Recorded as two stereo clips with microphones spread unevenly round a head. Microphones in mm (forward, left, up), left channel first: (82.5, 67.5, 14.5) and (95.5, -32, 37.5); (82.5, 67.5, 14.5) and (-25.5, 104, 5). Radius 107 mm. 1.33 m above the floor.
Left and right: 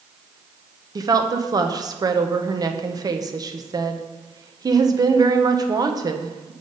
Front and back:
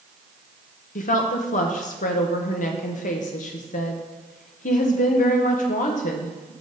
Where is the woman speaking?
25° right, 1.0 m.